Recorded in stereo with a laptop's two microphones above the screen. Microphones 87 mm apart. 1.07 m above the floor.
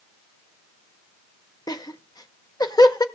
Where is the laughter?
45° left (ahead or behind), 1.2 m.